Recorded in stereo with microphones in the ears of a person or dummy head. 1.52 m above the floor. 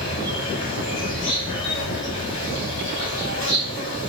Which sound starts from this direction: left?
An insect, at 0.0 s.